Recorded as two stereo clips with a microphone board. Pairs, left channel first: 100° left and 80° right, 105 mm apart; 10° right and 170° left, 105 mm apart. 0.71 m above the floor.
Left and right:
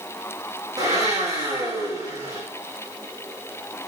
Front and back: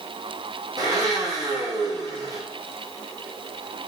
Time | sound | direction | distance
0.8 | a blender | 135° right | 5.5 m